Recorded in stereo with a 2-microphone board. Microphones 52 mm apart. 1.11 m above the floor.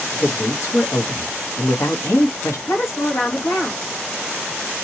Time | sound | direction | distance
0.1 | a man speaking | 70° left (ahead or behind) | 1.5 m
2.7 | a woman speaking | 75° left (ahead or behind) | 3 m